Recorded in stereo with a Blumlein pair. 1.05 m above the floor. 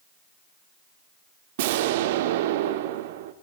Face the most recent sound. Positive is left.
turn(degrees=-55)